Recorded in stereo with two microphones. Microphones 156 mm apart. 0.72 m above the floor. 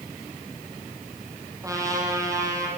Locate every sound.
1.6 s a trumpet: 20° right (ahead or behind), 5 m